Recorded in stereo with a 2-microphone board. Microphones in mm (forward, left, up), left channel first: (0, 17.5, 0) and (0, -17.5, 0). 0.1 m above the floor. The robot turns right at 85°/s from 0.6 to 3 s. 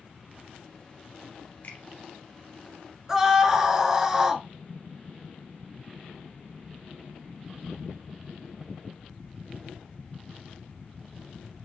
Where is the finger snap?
45° left (ahead or behind), 2 m; by 1.8 s 40° left (ahead or behind), 2 m.